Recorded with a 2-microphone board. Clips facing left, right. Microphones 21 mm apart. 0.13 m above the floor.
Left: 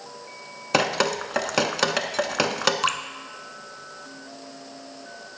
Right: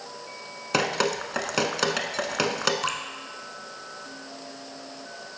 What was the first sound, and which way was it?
Dripping, 5° left (ahead or behind).